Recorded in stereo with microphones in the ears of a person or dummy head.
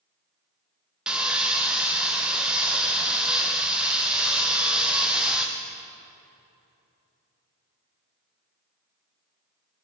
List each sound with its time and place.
1.1 s sawing: 5° right (ahead or behind), 0.7 m